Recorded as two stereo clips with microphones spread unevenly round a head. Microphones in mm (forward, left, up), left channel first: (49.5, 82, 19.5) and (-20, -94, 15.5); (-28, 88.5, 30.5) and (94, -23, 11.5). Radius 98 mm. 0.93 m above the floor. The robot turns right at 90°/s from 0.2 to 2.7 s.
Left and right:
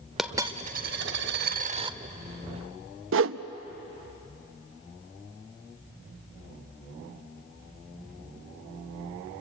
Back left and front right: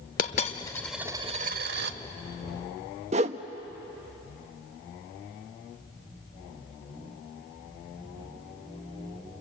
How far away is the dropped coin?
About 0.8 m.